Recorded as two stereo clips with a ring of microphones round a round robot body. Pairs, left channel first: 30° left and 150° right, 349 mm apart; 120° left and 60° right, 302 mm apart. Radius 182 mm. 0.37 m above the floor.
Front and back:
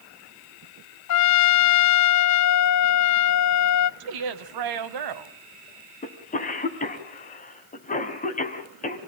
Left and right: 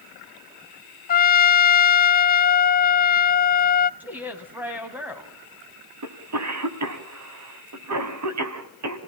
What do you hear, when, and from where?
1.1 s a trumpet: 65° left, 0.7 m
4.0 s a woman speaking: 145° right, 2 m
6.0 s a cough: 35° right, 3.5 m